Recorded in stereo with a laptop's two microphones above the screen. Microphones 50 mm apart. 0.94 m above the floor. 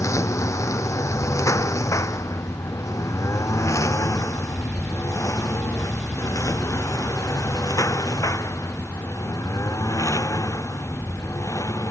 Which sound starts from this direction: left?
A lawn mower, at 0.0 s.